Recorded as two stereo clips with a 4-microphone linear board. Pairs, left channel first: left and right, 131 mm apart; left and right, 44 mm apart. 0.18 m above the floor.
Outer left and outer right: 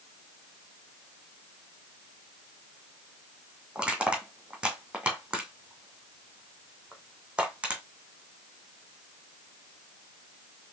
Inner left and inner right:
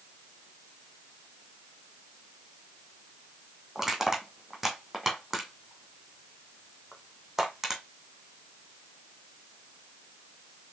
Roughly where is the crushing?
Centre.